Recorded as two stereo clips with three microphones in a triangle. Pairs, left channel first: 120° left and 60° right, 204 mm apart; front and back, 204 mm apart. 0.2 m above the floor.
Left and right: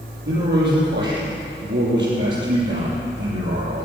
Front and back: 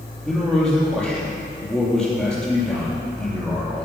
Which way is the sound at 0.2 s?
85° right.